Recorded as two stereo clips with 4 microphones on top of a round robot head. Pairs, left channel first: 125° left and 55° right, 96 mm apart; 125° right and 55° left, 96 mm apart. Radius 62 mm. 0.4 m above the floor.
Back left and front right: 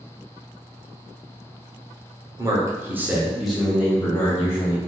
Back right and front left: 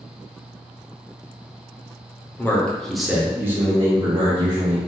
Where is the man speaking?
70° right, 0.9 m; by 4.8 s 80° left, 1.4 m.